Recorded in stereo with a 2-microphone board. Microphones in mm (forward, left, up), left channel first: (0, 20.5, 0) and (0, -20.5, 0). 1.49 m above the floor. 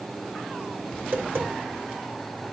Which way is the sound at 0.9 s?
60° right (ahead or behind).